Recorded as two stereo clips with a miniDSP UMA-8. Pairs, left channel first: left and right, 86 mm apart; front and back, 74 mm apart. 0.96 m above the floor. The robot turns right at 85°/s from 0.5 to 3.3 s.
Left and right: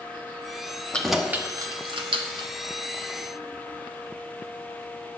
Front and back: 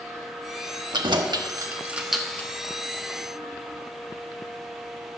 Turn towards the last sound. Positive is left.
turn(degrees=5)